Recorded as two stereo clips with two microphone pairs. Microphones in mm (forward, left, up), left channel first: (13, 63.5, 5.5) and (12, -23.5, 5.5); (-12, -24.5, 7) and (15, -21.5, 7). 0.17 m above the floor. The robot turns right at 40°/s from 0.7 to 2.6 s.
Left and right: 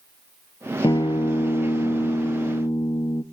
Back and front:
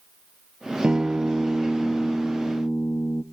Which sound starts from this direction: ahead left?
A guitar, at 0.8 s.